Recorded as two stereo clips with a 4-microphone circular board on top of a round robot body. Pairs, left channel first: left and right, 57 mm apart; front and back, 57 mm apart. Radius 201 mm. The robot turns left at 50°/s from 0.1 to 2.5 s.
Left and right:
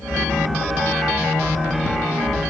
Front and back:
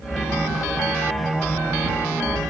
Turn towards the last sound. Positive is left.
No sound to turn to.